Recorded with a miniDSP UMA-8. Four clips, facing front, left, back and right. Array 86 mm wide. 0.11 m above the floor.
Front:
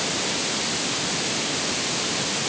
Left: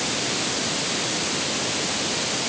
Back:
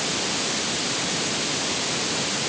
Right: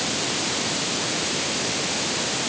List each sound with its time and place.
Only background noise.